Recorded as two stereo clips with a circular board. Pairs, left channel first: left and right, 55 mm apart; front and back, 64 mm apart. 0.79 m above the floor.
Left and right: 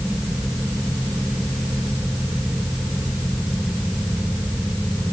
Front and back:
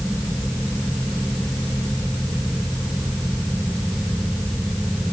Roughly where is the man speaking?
I don't hear a man speaking.